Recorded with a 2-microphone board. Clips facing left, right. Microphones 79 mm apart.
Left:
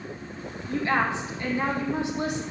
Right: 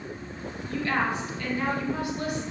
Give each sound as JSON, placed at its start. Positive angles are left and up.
{"t": 0.7, "sound": "a woman speaking", "side_deg": 20, "distance_m": 2.0}